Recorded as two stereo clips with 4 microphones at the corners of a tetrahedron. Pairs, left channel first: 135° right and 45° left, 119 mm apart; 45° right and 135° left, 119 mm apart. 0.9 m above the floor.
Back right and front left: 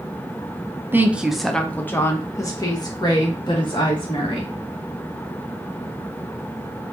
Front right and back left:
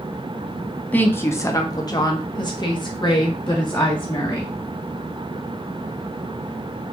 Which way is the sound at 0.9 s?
10° left.